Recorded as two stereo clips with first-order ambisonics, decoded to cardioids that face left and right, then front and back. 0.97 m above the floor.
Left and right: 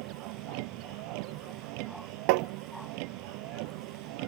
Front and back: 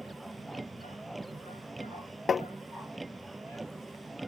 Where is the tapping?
70° right.